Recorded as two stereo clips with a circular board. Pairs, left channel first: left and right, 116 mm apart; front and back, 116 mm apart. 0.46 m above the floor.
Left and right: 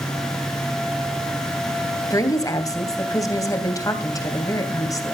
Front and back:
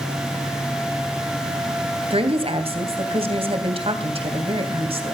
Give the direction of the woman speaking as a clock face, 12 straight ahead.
7 o'clock.